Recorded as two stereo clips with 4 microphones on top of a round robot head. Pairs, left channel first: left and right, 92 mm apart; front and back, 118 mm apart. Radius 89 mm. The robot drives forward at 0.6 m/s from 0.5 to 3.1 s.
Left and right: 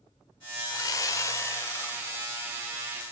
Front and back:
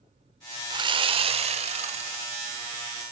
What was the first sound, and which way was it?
Sawing, 135° left.